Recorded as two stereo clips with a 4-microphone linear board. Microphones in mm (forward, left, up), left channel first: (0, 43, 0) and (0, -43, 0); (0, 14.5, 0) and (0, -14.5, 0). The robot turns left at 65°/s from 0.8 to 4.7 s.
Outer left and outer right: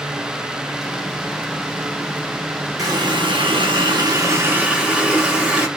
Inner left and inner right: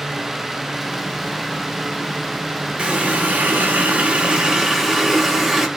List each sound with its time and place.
2.8 s a running tap: 45° right, 1.2 m; by 5.7 s 170° right, 1.2 m